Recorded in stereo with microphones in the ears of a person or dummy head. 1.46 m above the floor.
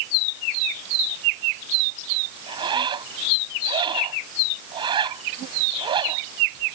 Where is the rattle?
No rattle in this recording.